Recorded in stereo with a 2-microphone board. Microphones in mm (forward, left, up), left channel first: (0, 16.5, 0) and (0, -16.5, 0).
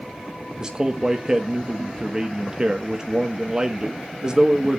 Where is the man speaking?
25° right (ahead or behind), 1.1 m.